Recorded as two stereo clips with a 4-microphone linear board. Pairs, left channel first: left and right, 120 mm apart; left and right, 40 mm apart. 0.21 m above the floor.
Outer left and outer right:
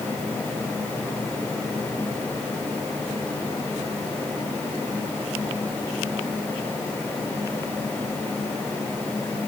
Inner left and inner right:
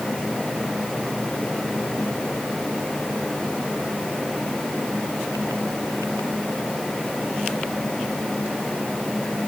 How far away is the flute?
No flute in this recording.